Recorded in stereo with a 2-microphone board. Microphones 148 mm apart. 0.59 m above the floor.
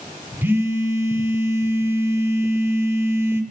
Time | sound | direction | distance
0.4 | a phone buzzing | 15° right (ahead or behind) | 0.8 m